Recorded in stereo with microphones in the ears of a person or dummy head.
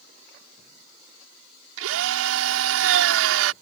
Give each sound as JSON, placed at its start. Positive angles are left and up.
{"t": 1.8, "sound": "a drill", "side_deg": -75}